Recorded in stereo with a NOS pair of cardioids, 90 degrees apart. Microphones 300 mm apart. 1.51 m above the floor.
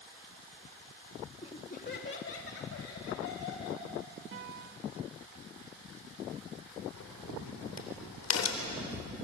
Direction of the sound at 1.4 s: 20° left.